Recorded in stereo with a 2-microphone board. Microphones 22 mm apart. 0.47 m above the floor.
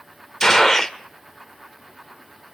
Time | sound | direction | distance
0.4 | a gunshot | 25° left (ahead or behind) | 1.1 m